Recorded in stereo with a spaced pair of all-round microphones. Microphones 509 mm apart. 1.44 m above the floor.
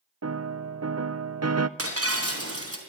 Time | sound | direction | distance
0.2 | a piano | 30° right (ahead or behind) | 0.6 m
1.8 | breaking glass | 25° right (ahead or behind) | 3.5 m